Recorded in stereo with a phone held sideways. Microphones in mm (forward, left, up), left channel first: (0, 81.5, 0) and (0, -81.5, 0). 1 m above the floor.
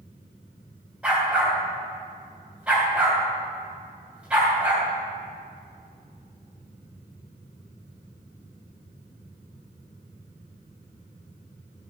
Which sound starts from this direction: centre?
A dog barking, at 1.0 s.